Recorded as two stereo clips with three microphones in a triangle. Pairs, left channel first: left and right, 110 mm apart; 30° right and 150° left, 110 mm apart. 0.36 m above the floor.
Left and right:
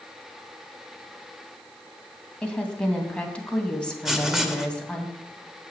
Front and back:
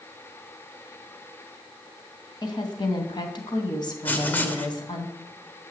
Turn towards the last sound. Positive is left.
turn(degrees=-15)